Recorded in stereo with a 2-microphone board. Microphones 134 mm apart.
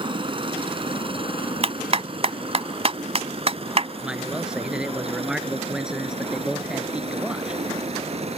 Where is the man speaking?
5° right (ahead or behind).